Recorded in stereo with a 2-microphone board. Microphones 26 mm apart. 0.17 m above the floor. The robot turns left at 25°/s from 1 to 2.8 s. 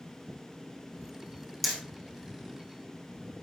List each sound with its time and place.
1.6 s hammering: centre (ahead or behind), 3 m; by 1.8 s 5° left (ahead or behind), 3 m